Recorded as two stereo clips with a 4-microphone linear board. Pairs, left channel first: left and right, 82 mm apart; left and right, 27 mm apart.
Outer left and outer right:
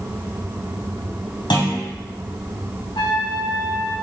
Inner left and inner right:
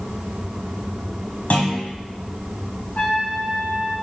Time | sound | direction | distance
1.5 | a clunk | 75° left (ahead or behind) | 2.5 m
3.0 | a trumpet | 70° left (ahead or behind) | 4 m